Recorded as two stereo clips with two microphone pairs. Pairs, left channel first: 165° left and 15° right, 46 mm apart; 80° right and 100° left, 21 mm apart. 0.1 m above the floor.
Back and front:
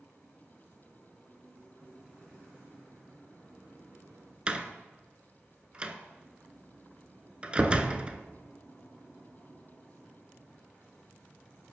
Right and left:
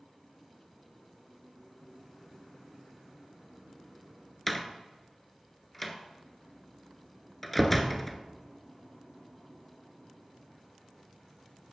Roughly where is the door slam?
Ahead.